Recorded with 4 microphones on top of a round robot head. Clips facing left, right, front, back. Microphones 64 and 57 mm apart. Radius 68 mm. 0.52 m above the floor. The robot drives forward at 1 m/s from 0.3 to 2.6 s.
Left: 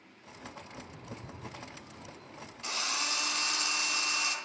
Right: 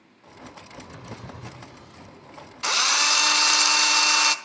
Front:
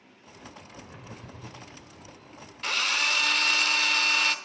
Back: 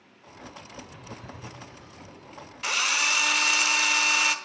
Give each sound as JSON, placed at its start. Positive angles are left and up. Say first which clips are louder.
{"t": 0.8, "sound": "a drawer", "louder": "right 6 dB, back 1 dB", "azimuth_deg": -60, "distance_m": 0.9}
{"t": 2.6, "sound": "a drill", "louder": "right 12 dB, back 1 dB", "azimuth_deg": -95, "distance_m": 0.9}